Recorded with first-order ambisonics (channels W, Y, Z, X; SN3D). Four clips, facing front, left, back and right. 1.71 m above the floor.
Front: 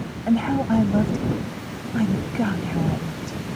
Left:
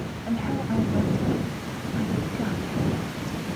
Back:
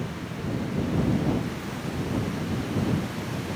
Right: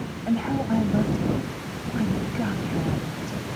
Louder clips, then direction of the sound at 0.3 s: Right 3 dB, front 14 dB; 15° right.